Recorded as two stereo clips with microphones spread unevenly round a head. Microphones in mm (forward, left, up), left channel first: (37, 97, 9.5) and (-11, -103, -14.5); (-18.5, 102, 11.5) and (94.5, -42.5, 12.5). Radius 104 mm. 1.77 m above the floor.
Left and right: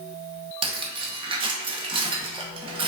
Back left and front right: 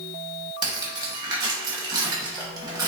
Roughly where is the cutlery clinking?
Right.